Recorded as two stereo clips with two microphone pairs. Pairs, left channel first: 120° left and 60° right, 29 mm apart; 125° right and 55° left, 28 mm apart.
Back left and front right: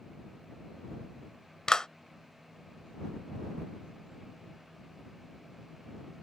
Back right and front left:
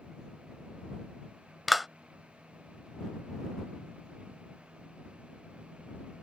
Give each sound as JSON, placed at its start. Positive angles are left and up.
{"t": 1.7, "sound": "a clap", "azimuth_deg": 145}